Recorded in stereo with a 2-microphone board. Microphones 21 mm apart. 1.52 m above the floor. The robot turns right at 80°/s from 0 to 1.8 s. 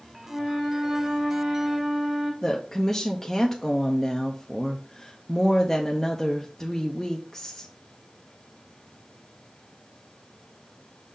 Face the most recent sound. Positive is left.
turn(degrees=15)  # may be behind; listen again after turning